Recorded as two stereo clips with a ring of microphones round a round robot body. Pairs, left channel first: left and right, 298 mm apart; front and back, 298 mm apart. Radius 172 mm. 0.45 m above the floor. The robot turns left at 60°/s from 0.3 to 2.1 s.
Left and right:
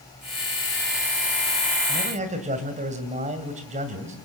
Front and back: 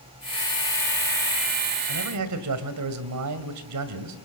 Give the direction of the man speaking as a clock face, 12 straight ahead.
5 o'clock.